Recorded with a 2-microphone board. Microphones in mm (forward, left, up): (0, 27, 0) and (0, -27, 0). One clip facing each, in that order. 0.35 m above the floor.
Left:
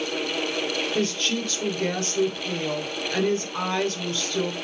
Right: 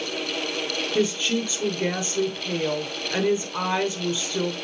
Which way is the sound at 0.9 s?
10° right (ahead or behind).